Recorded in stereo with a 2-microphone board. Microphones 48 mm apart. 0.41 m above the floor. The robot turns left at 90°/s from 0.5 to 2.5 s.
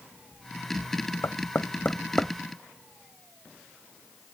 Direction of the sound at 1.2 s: 60° left (ahead or behind).